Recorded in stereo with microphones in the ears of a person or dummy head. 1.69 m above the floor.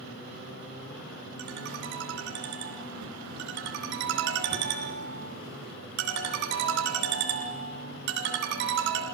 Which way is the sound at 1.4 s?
65° right (ahead or behind).